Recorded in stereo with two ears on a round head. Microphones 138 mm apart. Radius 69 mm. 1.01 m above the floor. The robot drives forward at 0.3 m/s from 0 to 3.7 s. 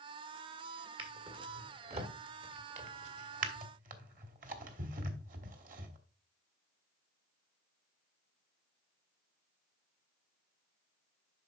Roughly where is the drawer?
Right.